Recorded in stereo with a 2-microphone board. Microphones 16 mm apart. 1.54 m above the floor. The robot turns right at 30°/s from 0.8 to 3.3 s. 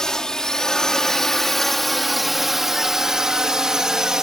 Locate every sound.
0.0 s a drone: 40° left (ahead or behind); by 4.2 s 35° right (ahead or behind)